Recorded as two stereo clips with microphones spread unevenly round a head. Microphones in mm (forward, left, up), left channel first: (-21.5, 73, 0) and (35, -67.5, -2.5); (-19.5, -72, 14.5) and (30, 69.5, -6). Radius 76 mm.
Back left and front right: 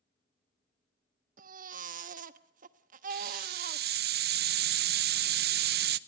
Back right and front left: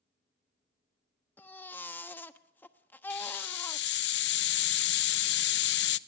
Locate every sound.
1.4 s a baby crying: 35° right, 1.2 m
3.1 s a hiss: 95° right, 0.8 m